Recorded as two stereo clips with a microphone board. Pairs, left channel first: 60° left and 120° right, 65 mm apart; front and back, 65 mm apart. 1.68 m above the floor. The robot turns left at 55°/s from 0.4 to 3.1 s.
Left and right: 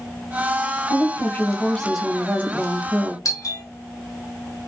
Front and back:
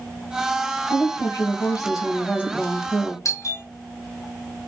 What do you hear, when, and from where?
0.9 s a woman speaking: 25° left, 0.9 m; by 3.1 s 95° right, 0.9 m
3.2 s a doorbell: 35° left, 0.6 m